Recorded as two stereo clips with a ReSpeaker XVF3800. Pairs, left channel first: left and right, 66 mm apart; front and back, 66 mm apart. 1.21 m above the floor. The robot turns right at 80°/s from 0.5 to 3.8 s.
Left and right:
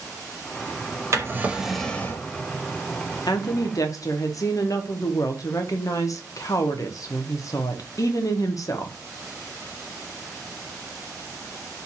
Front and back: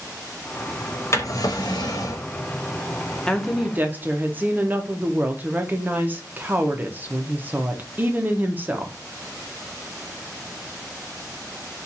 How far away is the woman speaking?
About 0.6 m.